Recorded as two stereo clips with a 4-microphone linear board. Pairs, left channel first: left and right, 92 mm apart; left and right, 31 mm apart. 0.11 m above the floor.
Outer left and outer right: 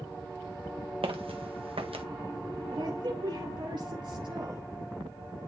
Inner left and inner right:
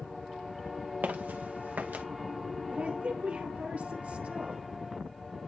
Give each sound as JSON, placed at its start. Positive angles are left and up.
{"t": 1.0, "sound": "footsteps", "side_deg": -85, "distance_m": 2.0}
{"t": 2.7, "sound": "a woman speaking", "side_deg": -55, "distance_m": 2.5}